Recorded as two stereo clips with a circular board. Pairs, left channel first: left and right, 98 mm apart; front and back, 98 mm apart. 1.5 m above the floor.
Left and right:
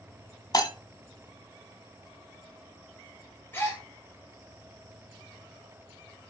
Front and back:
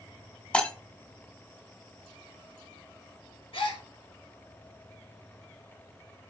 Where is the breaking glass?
75° left, 1.8 m.